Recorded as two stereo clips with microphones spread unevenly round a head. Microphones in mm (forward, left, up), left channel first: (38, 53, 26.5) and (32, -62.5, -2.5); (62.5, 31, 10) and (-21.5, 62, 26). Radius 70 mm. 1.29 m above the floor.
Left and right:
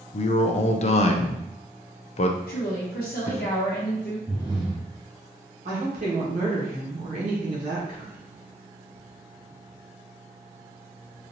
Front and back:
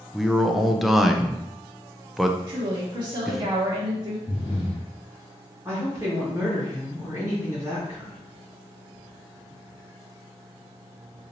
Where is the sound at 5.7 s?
125° right, 1.6 m.